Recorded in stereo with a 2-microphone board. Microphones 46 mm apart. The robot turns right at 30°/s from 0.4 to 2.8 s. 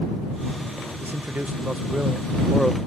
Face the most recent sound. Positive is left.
turn(degrees=5)